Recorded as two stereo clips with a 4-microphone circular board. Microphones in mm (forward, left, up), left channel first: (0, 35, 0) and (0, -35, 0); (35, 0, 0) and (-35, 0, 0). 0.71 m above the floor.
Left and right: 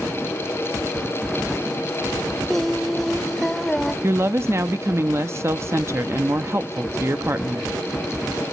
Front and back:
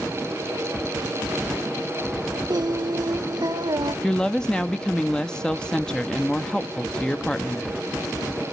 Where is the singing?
175° left, 0.6 m.